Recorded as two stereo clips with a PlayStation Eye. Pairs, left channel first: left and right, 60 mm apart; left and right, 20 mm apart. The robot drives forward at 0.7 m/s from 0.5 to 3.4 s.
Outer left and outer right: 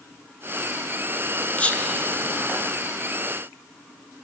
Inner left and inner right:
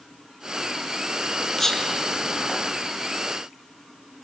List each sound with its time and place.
1.6 s whispering: 20° left (ahead or behind), 1.2 m